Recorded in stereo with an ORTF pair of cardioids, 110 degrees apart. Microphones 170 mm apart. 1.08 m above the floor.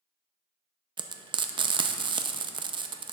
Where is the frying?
30° right, 0.5 m.